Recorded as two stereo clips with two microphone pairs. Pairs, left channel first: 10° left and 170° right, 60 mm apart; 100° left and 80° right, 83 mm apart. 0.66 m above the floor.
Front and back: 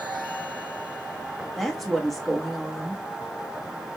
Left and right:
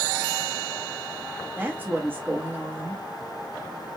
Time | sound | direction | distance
1.6 | a woman speaking | 75° right | 0.9 m